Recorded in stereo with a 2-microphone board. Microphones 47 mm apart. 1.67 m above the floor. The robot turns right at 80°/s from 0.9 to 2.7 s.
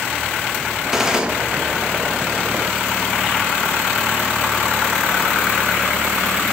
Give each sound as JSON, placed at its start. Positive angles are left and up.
{"t": 0.9, "sound": "a gunshot", "side_deg": -10, "distance_m": 1.0}